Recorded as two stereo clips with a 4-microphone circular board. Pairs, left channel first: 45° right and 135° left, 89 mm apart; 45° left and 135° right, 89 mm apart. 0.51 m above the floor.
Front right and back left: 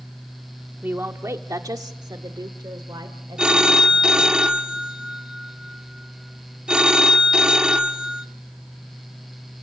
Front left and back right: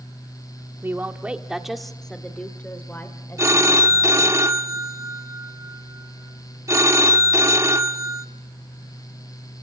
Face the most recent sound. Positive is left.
turn(degrees=-150)